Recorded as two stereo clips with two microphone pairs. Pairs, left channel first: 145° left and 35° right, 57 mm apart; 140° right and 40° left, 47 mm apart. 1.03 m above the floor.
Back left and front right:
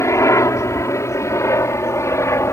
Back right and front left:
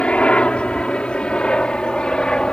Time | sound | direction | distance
0.0 | a helicopter | 160° left | ?